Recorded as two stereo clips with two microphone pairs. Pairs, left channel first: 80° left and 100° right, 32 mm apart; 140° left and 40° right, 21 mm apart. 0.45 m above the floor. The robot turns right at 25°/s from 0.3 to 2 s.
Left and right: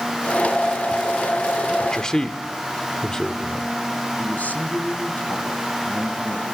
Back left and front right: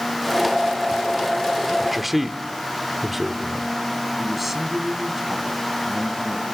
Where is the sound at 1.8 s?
35° left, 1.5 m; by 3.7 s 40° left, 1.5 m.